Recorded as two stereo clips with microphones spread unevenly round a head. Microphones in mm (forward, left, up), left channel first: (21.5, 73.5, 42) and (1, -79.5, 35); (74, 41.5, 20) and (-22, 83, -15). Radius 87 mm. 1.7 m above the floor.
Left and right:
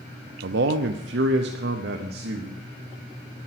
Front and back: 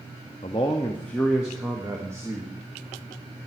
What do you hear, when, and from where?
0.4 s a man speaking: 80° right, 0.7 m; by 2.7 s 135° right, 1.4 m